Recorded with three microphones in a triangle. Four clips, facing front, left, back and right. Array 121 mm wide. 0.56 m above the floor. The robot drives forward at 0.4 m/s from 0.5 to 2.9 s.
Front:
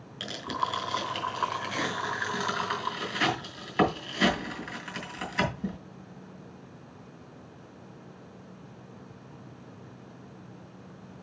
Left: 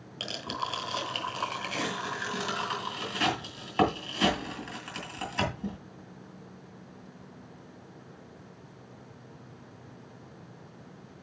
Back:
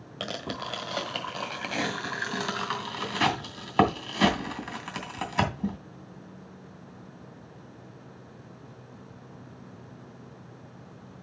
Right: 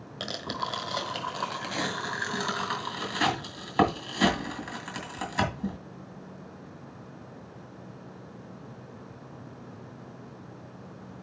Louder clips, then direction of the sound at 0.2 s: Right 1 dB, front 3 dB; 165° right.